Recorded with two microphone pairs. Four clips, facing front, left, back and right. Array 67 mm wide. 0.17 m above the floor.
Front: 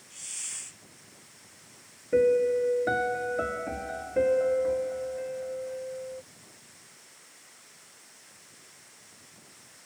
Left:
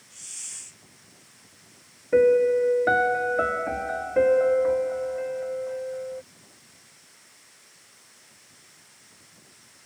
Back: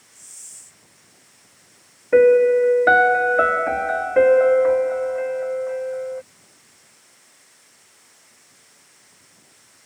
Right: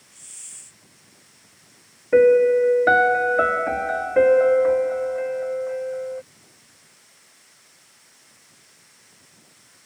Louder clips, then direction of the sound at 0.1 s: Left 5 dB, front 10 dB; 15° left.